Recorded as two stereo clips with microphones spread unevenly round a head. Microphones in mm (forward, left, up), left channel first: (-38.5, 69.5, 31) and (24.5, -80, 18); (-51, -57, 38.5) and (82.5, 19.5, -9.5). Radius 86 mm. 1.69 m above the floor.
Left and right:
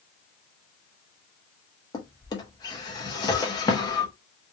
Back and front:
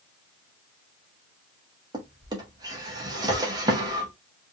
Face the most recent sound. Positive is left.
turn(degrees=110)